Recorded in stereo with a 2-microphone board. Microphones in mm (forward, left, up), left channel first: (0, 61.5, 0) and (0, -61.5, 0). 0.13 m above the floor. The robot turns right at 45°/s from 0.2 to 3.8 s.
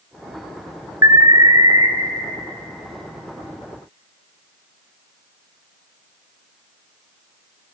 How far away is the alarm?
About 1.4 m.